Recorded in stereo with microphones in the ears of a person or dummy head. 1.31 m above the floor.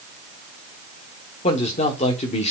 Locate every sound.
1.4 s a man speaking: 35° left (ahead or behind), 1.1 m